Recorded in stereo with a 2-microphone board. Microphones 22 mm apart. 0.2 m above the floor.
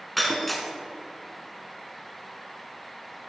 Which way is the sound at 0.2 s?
5° left (ahead or behind).